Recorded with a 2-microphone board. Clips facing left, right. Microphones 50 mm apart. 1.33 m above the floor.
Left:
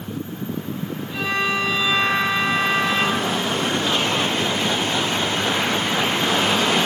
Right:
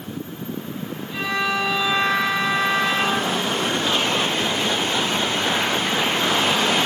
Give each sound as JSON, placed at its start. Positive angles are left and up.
{"t": 1.1, "sound": "a violin", "side_deg": 0, "distance_m": 3.0}